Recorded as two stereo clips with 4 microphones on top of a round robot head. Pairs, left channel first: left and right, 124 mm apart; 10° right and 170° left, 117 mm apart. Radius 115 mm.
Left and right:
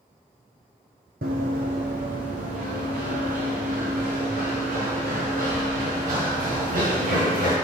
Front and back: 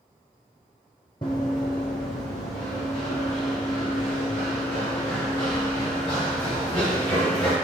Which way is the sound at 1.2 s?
70° right.